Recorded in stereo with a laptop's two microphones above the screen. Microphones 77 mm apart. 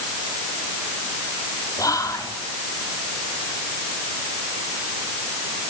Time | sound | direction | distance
1.8 | whispering | 50° left (ahead or behind) | 2.5 m